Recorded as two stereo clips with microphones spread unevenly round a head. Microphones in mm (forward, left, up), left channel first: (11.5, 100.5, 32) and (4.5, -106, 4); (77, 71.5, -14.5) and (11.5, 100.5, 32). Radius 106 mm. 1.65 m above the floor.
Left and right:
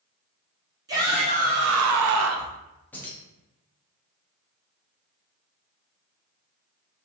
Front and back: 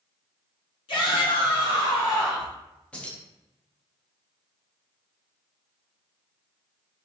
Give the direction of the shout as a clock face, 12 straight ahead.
1 o'clock.